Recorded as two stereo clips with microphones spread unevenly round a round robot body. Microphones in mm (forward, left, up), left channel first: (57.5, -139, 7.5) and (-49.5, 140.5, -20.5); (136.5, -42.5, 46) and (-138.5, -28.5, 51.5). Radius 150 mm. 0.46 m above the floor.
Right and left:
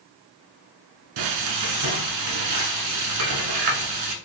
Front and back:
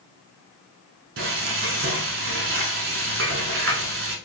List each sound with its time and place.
1.2 s frying: 125° left, 0.9 m